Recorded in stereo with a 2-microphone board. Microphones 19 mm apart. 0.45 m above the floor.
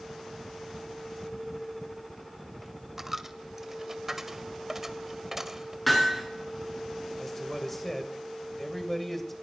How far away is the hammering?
About 4 m.